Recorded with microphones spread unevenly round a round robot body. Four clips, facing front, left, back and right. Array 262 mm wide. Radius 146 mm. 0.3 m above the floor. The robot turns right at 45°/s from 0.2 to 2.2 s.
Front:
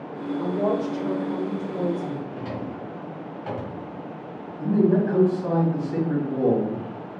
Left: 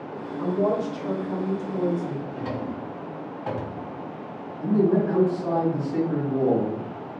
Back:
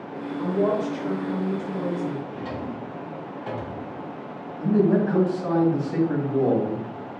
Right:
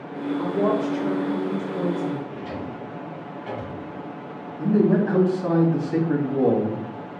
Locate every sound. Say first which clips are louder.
0.4 s a woman speaking: right 1 dB, back 1 dB; 100° right, 1.2 m; by 2.2 s 20° right, 1.2 m
2.3 s a drawer: left 2 dB, even; 80° left, 1.4 m
4.6 s a man speaking: right 2 dB, even; 90° right, 1.8 m